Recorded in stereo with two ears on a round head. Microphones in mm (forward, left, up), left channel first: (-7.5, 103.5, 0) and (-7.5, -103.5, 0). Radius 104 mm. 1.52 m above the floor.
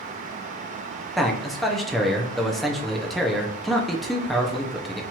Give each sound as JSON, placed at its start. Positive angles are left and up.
{"t": 1.2, "sound": "a man speaking", "side_deg": 0, "distance_m": 0.7}